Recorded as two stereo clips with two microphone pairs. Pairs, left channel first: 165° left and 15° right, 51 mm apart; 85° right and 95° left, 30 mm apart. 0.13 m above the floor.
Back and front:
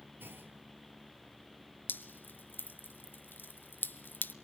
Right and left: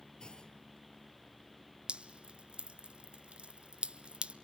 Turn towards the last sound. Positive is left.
turn(degrees=130)